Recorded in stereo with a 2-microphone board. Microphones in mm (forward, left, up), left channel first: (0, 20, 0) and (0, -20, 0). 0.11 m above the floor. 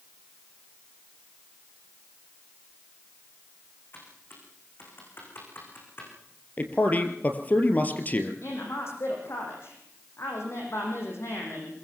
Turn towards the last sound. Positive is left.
turn(degrees=75)  # may be behind; listen again after turning